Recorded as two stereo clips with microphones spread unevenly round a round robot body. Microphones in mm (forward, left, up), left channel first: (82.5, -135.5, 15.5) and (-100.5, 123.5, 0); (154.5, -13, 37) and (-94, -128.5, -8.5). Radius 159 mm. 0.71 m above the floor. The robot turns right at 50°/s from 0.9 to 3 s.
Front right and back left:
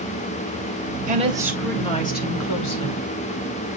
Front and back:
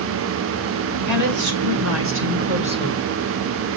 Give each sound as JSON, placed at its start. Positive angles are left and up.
{"t": 1.1, "sound": "a woman speaking", "azimuth_deg": -170, "distance_m": 3.0}